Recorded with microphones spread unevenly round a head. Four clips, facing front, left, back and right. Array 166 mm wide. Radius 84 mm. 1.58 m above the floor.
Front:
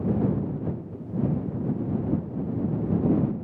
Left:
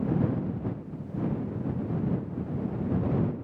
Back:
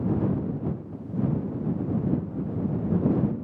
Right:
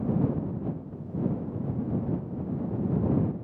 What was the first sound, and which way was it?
Only background noise.